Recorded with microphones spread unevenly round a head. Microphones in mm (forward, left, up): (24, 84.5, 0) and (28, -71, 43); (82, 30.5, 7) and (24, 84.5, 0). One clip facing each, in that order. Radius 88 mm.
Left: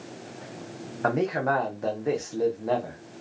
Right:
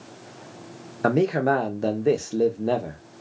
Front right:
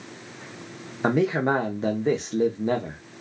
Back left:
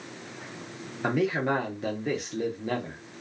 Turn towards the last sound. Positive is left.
turn(degrees=-95)